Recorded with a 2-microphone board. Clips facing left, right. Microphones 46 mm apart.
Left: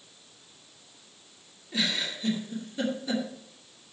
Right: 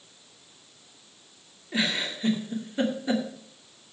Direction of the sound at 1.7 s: 30° right (ahead or behind).